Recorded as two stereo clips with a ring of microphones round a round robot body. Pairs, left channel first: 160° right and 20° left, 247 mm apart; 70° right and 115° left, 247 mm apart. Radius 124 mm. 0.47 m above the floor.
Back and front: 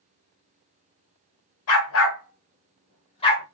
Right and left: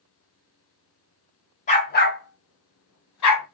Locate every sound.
1.7 s a dog barking: 130° right, 1.3 m; by 3.4 s 85° right, 1.7 m